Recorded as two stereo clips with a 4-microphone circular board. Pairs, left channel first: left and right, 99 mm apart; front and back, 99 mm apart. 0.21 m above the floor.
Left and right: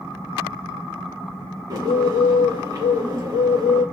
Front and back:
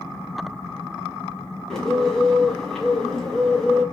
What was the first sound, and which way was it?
A bird, 80° right.